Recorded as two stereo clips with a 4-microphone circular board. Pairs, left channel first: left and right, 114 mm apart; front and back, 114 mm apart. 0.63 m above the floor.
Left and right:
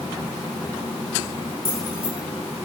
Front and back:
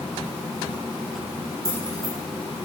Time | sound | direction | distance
1.6 | keys jangling | 120° left | 4 m